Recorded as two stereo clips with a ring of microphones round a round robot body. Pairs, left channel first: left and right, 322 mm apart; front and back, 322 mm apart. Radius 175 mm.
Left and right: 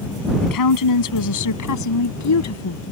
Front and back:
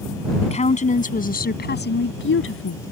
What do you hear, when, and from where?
0.4 s a woman speaking: 70° left; by 2.8 s 50° left